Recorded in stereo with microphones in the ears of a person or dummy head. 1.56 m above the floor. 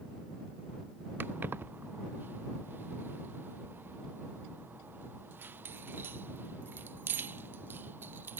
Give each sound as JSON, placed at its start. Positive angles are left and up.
{"t": 1.2, "sound": "keys jangling", "side_deg": -10}